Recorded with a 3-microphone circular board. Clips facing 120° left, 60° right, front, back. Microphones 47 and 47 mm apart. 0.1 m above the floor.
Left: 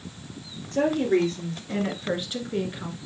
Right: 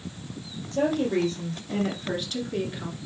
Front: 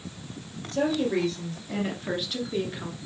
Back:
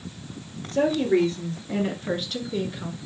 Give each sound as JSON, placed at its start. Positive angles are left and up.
{"t": 0.7, "sound": "a woman speaking", "azimuth_deg": 130, "distance_m": 2.0}